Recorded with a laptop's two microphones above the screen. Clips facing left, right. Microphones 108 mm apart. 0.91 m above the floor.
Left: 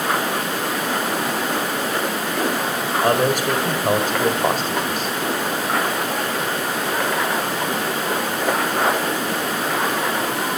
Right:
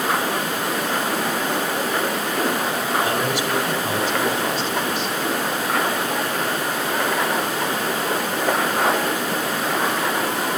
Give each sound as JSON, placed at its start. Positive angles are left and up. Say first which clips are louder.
{"t": 3.0, "sound": "a man speaking", "louder": "left 4 dB", "side_deg": 50, "distance_m": 5.0}